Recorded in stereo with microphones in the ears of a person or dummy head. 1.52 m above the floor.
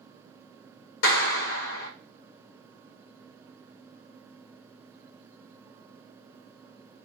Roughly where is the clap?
Left.